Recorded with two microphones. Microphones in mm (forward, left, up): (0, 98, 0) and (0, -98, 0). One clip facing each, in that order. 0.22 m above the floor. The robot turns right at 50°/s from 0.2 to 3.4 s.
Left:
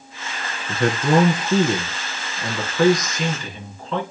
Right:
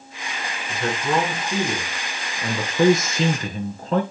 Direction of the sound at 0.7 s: 95° left.